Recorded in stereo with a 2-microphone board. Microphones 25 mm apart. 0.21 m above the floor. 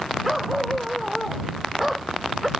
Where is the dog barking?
10° right (ahead or behind).